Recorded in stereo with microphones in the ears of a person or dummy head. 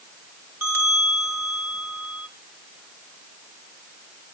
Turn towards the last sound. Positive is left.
turn(degrees=-15)  # may be behind; listen again after turning